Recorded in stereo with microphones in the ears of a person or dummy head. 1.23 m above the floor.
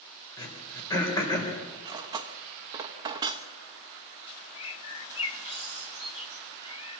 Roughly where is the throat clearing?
Left.